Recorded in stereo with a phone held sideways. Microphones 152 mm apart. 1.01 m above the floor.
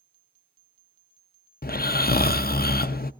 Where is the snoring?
85° left, 0.5 m.